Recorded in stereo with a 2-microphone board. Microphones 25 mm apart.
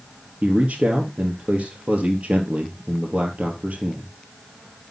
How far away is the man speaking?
About 3 m.